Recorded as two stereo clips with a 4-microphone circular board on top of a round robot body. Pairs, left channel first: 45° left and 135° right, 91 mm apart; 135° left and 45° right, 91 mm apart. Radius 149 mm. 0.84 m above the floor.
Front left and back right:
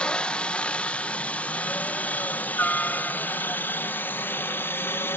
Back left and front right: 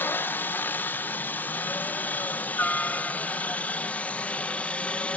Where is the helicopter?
110° left; by 5.2 s 75° left.